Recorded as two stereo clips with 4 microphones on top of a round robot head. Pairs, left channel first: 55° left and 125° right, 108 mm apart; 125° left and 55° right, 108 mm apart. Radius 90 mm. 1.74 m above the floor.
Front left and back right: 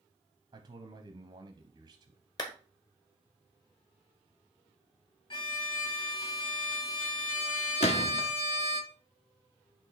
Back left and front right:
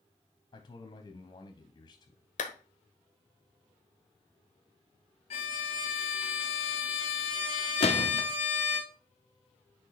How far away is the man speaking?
About 0.8 m.